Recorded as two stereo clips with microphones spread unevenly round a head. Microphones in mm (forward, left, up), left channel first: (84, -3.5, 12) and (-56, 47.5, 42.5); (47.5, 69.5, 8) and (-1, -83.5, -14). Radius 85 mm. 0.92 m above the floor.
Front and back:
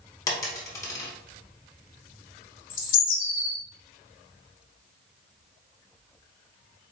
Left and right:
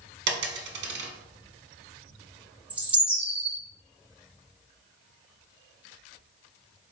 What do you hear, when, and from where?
0.3 s a dropped coin: 95° right, 1.0 m
2.7 s a bird: 30° right, 1.1 m